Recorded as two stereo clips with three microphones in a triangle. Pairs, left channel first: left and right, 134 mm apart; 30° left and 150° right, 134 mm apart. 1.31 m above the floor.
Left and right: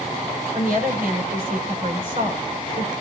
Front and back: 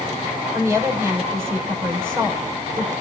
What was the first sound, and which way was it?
A woman speaking, 75° right.